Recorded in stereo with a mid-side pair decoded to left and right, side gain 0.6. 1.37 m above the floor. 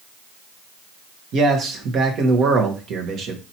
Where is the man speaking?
55° right, 1.4 m.